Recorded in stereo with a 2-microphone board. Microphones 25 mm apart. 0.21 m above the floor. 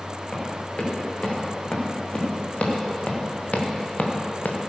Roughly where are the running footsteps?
Left.